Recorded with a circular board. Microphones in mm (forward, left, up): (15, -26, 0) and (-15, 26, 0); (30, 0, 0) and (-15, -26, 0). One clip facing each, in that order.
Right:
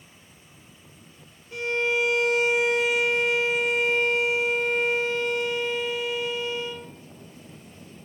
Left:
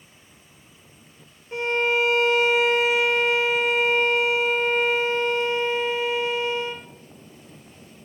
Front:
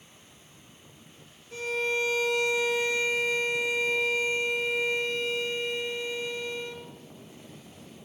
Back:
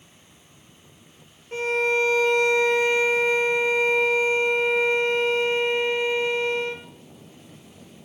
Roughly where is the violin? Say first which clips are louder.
Left 3 dB, back 7 dB; behind.